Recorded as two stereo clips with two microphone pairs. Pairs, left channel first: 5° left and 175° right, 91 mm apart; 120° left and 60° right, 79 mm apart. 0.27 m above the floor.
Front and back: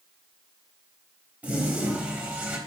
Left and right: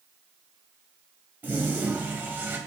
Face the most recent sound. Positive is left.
turn(degrees=-110)